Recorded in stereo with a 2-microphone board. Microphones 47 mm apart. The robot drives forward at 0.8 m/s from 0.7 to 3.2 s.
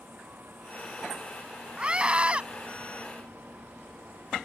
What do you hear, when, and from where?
1.8 s a scream: 25° right (ahead or behind)